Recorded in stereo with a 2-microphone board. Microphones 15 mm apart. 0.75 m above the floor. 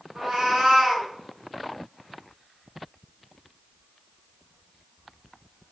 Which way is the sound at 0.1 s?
80° right.